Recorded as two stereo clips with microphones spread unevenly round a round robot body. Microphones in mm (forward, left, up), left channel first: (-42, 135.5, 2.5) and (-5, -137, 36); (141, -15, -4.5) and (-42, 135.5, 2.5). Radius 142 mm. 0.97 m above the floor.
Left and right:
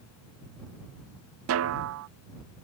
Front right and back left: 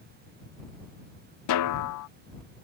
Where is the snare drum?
40° right.